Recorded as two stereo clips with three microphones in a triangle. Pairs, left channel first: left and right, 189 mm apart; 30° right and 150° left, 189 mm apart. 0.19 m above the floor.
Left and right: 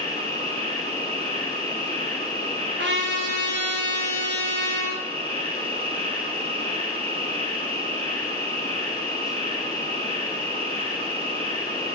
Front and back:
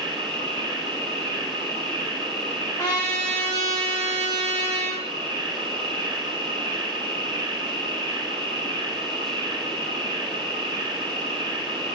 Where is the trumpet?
100° right, 4 m.